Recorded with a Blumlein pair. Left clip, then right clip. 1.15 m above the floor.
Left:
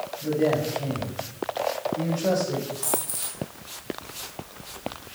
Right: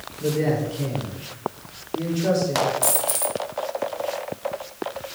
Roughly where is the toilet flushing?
No toilet flushing in this recording.